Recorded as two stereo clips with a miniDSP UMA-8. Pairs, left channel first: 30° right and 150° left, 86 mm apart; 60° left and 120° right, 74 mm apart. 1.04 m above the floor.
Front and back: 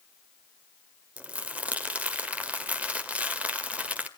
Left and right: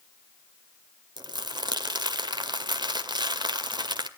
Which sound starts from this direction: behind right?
Crumpling, at 1.2 s.